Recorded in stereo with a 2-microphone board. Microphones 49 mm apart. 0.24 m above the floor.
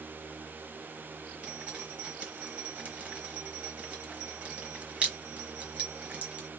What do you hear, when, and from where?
1.4 s dripping: 25° right (ahead or behind), 0.9 m